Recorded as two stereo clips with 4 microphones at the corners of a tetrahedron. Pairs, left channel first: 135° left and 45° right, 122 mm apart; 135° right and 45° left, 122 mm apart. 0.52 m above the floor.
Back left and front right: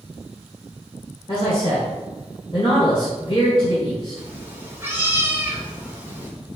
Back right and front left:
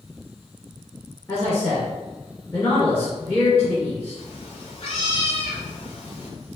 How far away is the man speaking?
About 1.6 m.